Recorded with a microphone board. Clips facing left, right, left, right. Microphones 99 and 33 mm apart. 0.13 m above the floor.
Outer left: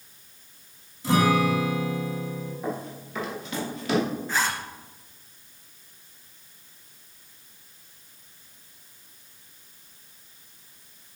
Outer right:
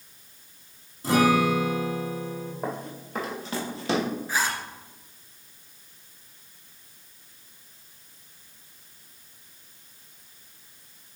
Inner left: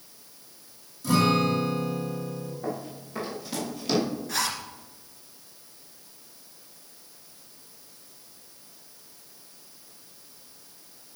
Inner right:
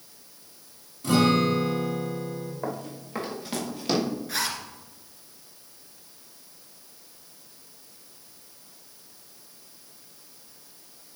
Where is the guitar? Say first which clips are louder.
Outer right 1 dB, inner right 1 dB; 35° right (ahead or behind), 4.5 m.